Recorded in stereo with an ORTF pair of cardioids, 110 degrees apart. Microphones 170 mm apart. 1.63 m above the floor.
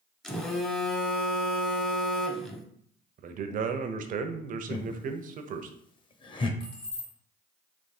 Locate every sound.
0.2 s a phone buzzing: 5° left, 0.8 m
3.2 s a man speaking: 50° right, 0.7 m
4.7 s laughter: 30° left, 0.9 m
6.6 s keys jangling: 60° left, 1.9 m